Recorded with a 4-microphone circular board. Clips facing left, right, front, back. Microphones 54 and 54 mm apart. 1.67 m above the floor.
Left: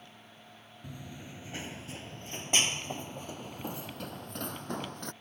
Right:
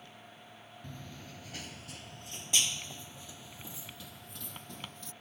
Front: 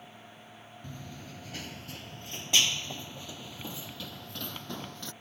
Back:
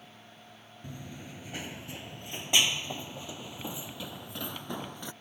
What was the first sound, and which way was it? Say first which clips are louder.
Running footsteps: left 3 dB, back 2 dB; 150° left.